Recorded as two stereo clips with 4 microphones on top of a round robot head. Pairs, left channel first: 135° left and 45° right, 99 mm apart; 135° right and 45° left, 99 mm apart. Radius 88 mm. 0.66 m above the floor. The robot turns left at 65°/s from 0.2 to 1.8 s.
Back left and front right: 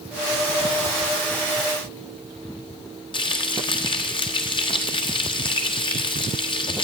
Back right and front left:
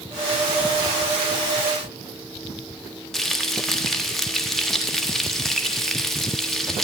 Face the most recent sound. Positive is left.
turn(degrees=140)